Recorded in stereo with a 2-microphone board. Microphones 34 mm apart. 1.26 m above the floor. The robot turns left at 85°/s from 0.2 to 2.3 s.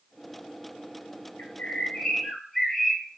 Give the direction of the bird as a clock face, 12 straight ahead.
9 o'clock.